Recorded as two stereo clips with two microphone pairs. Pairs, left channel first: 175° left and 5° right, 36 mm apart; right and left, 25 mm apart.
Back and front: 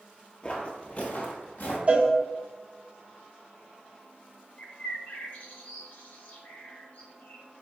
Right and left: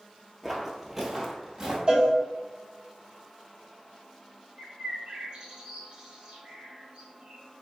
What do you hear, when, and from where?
0.4 s footsteps: 165° left, 0.9 m; by 1.8 s 155° left, 1.4 m
1.9 s a cowbell: 45° left, 1.0 m
4.6 s a bird: 140° left, 0.9 m